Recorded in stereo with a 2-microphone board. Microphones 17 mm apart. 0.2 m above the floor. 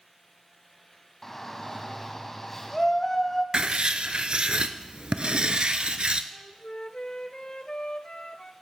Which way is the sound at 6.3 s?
55° left (ahead or behind).